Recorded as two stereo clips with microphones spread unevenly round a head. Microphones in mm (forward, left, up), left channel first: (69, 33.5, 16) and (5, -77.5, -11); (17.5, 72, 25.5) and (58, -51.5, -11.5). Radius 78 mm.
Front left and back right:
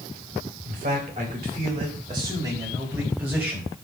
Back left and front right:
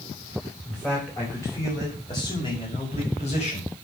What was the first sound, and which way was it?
A man speaking, 170° right.